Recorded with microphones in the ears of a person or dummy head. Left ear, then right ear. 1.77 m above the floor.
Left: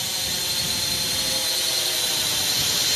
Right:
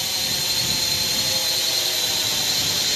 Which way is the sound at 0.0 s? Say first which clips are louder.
Right 3 dB; 5° right (ahead or behind).